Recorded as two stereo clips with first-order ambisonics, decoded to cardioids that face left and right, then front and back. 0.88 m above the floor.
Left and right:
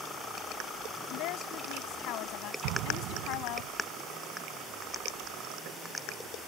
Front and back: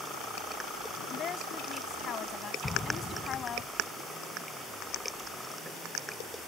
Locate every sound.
1.1 s a woman speaking: 60° left
2.6 s an explosion: 75° right